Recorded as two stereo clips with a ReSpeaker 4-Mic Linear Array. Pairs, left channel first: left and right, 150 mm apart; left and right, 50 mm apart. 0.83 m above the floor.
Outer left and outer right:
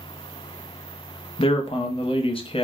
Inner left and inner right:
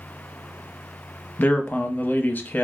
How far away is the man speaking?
About 0.6 m.